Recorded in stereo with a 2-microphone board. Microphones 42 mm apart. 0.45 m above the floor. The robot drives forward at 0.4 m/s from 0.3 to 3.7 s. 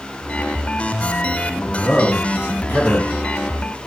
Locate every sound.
1.6 s a man speaking: 55° left (ahead or behind), 2.5 m; by 3.1 s 60° left (ahead or behind), 2.5 m